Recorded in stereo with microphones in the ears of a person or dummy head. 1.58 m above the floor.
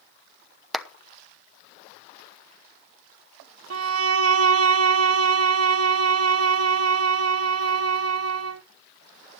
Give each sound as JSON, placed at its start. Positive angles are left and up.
{"t": 0.7, "sound": "a clap", "side_deg": 0, "distance_m": 0.8}
{"t": 3.7, "sound": "a violin", "side_deg": -80, "distance_m": 1.4}